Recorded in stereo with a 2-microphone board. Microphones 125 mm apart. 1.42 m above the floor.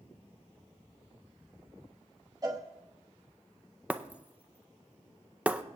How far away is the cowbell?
About 1.2 m.